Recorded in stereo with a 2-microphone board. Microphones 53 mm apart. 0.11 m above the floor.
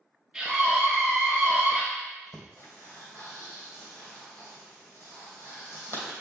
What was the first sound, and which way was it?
A scream, 10° right (ahead or behind).